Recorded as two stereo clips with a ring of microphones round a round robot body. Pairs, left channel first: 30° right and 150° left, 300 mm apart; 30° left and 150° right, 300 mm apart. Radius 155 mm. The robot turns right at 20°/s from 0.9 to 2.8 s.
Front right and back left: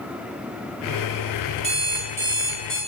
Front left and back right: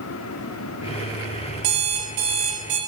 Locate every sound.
1.6 s an alarm clock: 140° right, 0.9 m; by 2.8 s 115° right, 0.9 m